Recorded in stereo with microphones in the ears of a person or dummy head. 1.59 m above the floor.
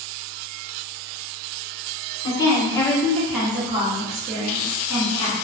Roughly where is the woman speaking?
Left.